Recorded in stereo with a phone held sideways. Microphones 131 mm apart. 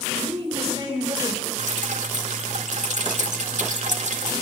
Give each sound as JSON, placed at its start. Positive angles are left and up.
{"t": 0.2, "sound": "a woman speaking", "side_deg": -30, "distance_m": 5.5}
{"t": 1.6, "sound": "dripping", "side_deg": -60, "distance_m": 1.7}